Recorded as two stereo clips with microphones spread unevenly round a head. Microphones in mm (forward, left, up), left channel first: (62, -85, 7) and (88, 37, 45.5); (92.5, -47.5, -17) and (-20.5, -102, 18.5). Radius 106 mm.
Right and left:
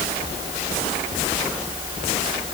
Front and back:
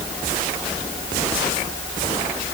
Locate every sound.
Only background noise.